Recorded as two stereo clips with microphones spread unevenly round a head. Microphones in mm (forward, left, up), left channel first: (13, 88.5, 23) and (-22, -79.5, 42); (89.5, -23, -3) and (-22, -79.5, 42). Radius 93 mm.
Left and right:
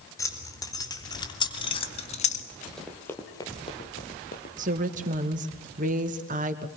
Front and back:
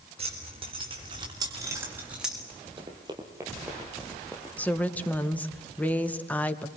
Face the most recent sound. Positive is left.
turn(degrees=-55)